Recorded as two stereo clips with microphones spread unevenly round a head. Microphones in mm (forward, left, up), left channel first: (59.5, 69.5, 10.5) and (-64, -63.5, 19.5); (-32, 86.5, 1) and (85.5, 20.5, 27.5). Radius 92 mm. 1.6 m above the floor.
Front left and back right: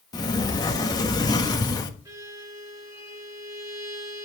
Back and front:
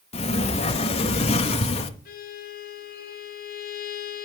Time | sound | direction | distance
0.1 | a sliding door | 110° left | 1.2 m
2.0 | a violin | 155° left | 3 m